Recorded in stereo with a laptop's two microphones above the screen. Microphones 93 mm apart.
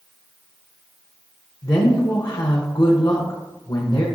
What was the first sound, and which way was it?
A woman speaking, 45° left (ahead or behind).